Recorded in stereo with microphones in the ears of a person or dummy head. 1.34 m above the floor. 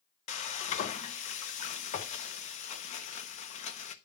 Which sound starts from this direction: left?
Frying, at 0.3 s.